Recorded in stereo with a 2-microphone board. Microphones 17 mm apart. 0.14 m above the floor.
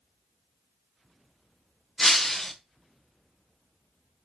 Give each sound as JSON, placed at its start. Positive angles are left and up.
{"t": 2.0, "sound": "breaking glass", "side_deg": 15, "distance_m": 1.6}